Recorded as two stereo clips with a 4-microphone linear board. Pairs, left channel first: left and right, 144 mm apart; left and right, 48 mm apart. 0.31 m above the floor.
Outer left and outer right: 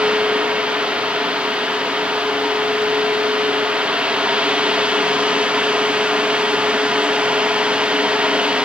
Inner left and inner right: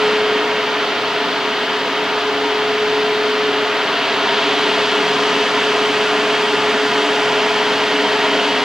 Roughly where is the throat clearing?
I don't hear throat clearing.